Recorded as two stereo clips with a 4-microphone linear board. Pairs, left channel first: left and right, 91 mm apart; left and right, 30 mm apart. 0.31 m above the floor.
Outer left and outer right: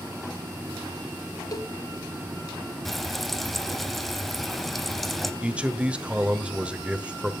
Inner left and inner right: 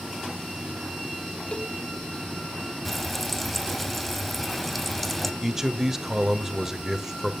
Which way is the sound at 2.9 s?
Centre (ahead or behind).